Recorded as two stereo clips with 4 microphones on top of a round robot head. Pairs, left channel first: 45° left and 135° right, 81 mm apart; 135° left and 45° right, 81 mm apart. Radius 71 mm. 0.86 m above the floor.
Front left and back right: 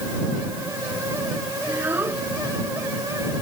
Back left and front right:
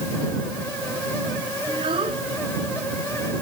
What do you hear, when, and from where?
1.7 s a child speaking: 70° right